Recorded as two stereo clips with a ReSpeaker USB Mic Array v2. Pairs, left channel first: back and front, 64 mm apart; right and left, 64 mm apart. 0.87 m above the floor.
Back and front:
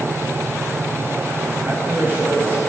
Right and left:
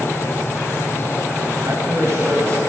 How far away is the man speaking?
About 4.5 m.